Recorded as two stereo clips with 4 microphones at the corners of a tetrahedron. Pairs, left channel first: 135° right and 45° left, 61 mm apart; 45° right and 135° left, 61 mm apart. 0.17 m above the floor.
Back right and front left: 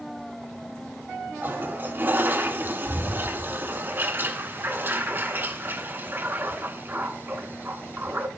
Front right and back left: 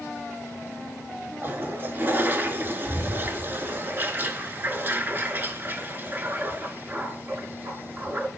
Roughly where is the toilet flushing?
Left.